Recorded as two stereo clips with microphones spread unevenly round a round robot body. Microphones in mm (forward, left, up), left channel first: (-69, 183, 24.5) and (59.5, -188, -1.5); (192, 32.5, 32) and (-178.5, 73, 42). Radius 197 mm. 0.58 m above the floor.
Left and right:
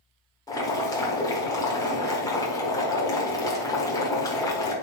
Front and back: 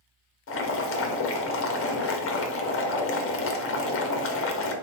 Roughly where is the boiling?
Ahead left.